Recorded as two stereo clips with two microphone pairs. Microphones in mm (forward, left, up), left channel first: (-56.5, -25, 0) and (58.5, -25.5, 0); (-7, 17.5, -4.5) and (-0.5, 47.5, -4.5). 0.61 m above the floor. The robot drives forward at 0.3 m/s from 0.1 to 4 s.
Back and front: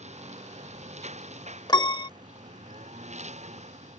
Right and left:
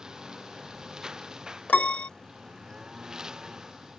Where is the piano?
130° right; by 2.1 s 140° right.